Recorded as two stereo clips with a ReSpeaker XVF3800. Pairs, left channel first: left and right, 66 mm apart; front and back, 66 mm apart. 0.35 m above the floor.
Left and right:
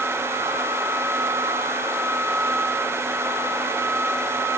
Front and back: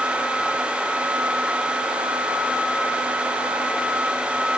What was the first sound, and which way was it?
Only background noise.